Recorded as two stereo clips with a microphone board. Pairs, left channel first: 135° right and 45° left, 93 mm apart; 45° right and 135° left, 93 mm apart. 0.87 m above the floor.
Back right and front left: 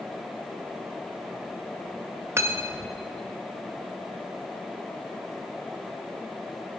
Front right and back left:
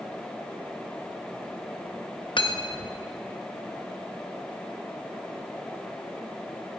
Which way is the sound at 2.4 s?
15° right.